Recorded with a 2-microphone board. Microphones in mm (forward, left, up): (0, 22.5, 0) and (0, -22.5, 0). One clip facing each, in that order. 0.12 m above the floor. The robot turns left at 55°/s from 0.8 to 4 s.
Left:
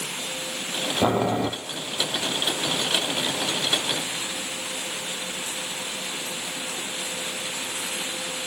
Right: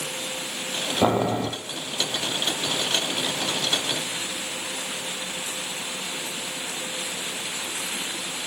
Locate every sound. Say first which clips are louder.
1.0 s boiling: even; 10° right (ahead or behind), 0.7 m; by 1.5 s 15° left (ahead or behind), 0.7 m